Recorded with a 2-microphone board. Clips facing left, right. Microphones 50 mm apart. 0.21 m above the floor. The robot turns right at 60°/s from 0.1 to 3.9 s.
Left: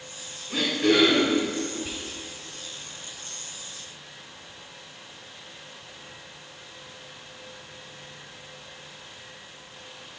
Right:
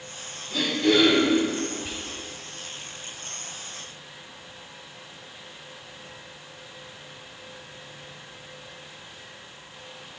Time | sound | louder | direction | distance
0.5 | throat clearing | even | 45° left | 2 m
1.8 | whispering | even | centre (ahead or behind) | 1.0 m